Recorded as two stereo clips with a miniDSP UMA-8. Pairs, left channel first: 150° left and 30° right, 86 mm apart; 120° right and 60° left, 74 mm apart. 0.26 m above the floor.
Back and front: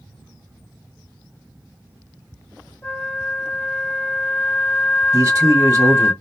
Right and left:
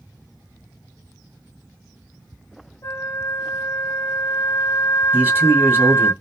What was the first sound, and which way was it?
A flute, 150° right.